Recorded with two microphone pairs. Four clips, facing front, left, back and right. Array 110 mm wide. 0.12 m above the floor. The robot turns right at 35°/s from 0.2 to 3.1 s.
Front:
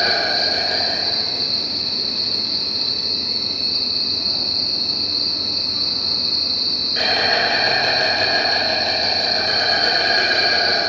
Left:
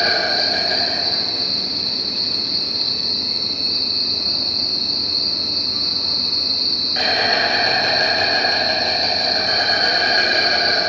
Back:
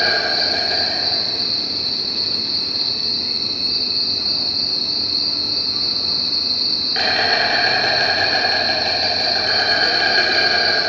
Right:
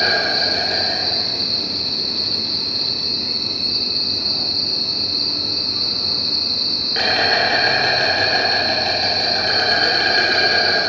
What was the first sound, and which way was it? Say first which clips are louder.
An insect: even, even; 90° left.